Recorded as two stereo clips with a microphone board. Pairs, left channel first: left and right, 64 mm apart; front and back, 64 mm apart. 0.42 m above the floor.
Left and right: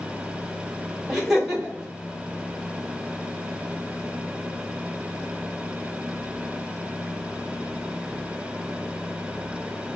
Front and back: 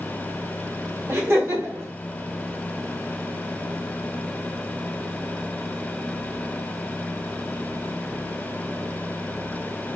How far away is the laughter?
About 1.3 m.